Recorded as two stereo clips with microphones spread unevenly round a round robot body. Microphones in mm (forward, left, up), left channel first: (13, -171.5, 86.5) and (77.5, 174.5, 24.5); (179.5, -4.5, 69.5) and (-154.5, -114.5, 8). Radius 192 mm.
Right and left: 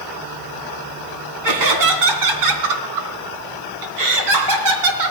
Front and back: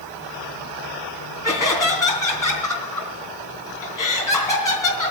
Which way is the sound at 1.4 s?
100° left.